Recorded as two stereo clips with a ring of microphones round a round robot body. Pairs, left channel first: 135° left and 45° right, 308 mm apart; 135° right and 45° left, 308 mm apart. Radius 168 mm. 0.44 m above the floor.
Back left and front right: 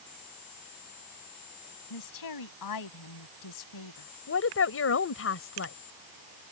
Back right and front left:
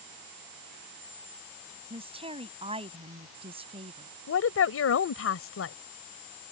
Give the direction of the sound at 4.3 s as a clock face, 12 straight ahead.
6 o'clock.